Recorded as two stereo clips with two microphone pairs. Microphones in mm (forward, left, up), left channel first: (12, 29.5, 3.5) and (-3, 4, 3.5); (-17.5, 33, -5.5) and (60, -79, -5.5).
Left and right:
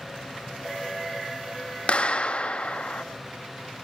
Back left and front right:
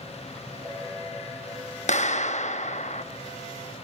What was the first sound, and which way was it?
A clap, 105° left.